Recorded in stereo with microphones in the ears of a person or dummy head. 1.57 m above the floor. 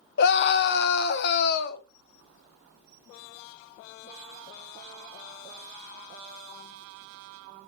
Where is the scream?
60° left (ahead or behind), 1.1 m.